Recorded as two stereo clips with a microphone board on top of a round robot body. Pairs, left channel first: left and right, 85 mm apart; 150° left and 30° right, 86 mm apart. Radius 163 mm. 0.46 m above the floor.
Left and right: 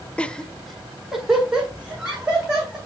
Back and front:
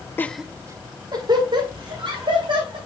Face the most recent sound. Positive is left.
turn(degrees=-10)